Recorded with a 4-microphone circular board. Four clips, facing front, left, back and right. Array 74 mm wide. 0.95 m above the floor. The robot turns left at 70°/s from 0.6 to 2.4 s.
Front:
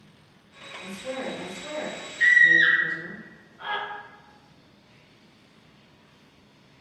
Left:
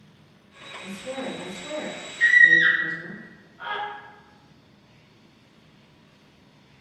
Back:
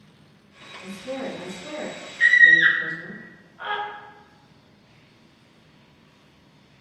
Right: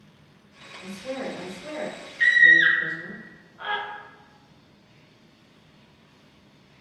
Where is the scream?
125° right, 0.7 m; by 3.8 s 140° right, 0.7 m.